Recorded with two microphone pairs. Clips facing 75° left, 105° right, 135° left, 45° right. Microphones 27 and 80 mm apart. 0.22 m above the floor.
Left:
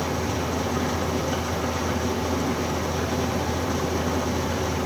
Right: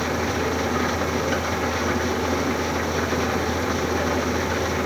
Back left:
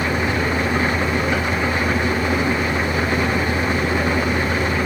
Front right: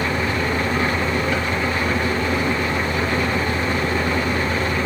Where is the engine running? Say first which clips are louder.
Right 3 dB, back left 1 dB; 160° right, 4 m.